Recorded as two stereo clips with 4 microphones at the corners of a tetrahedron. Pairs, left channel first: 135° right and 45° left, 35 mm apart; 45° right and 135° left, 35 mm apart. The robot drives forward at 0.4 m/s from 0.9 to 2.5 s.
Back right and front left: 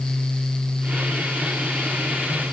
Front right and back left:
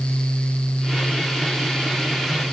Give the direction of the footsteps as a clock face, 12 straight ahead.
No footsteps in this recording.